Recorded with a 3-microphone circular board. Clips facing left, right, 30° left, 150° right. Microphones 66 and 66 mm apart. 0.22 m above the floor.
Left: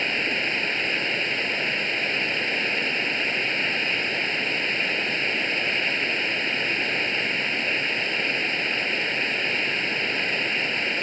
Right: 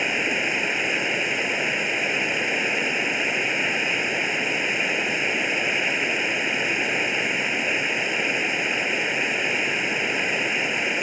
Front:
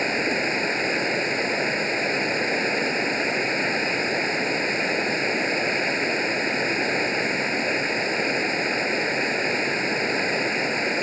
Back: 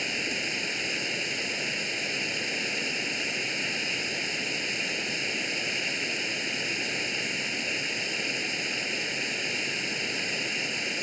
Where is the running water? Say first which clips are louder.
Right 2 dB, front 9 dB; 10° right.